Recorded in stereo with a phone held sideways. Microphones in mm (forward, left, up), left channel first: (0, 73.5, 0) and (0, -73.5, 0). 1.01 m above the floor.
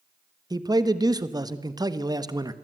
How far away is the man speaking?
About 1.3 m.